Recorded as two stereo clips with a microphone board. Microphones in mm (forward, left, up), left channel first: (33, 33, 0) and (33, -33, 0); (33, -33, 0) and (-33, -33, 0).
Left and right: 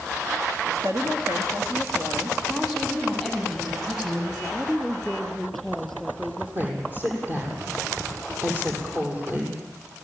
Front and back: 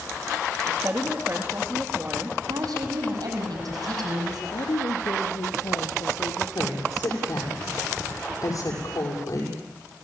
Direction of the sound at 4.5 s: Straight ahead.